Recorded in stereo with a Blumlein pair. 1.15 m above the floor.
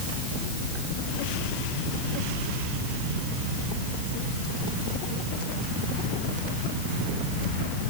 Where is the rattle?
No rattle in this recording.